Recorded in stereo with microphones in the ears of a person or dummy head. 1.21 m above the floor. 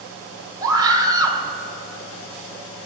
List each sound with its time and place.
0.6 s a scream: 20° right (ahead or behind), 1.2 m